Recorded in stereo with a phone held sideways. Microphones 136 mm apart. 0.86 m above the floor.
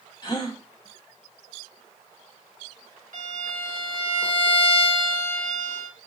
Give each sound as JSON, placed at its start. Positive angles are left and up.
{"t": 0.2, "sound": "a gasp", "side_deg": 35, "distance_m": 0.9}
{"t": 3.1, "sound": "a violin", "side_deg": -65, "distance_m": 1.6}